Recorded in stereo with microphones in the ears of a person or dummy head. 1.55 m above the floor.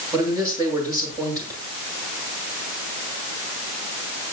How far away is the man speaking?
About 7.5 m.